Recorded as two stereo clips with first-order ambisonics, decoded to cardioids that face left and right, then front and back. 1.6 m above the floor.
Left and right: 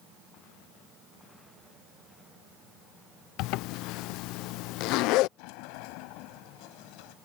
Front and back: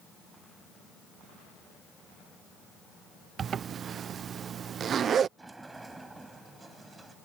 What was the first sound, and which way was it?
A zipper, 120° left.